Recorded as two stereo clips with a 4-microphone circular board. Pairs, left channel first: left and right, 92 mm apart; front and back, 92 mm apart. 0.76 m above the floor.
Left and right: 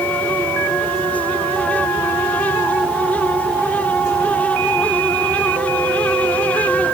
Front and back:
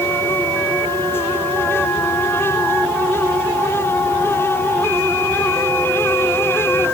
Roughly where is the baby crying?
I don't hear a baby crying.